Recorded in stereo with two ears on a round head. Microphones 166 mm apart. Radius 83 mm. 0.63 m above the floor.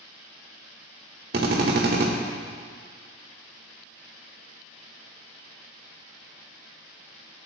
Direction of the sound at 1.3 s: 55° right (ahead or behind).